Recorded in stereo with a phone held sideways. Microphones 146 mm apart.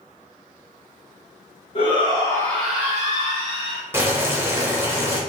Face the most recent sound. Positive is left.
turn(degrees=-15)  # may be behind; listen again after turning